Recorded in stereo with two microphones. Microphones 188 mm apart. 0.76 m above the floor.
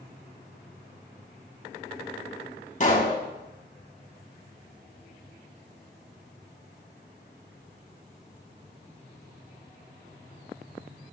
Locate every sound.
2.8 s a pop: 45° left (ahead or behind), 2.5 m